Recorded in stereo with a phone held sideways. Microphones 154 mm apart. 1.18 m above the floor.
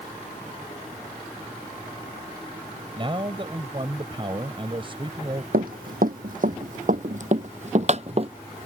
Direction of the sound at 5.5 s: 70° right (ahead or behind).